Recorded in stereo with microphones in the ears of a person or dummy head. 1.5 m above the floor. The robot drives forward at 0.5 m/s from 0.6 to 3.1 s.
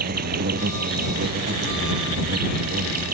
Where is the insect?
50° right (ahead or behind); by 3.1 s 45° right (ahead or behind).